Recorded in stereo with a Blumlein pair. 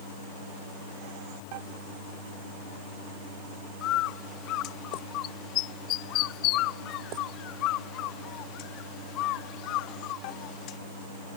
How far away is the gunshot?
I don't hear a gunshot.